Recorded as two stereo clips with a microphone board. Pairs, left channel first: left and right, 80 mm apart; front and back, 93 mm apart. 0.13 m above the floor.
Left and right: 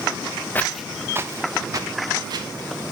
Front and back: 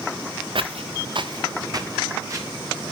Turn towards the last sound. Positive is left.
turn(degrees=-125)